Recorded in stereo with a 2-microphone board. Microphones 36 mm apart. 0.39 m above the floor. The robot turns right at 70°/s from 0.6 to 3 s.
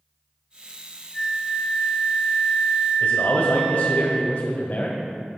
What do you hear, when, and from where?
1.1 s a flute: 145° left, 3 m; by 4.0 s 80° right, 3 m
3.0 s a man speaking: 45° left (ahead or behind), 1.5 m